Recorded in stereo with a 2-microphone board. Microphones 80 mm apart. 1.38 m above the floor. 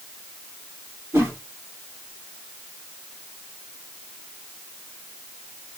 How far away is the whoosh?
About 2.5 m.